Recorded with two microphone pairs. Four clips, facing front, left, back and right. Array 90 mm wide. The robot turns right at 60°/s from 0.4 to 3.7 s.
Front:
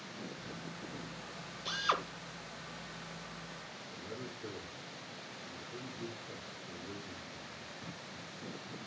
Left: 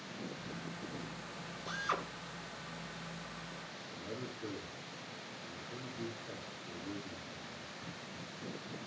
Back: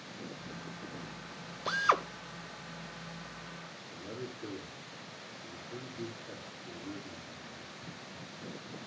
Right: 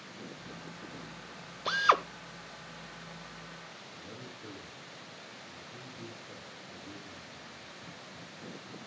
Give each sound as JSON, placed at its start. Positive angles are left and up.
{"t": 1.6, "sound": "a drill", "azimuth_deg": -125, "distance_m": 0.7}
{"t": 3.9, "sound": "a man speaking", "azimuth_deg": 130, "distance_m": 3.0}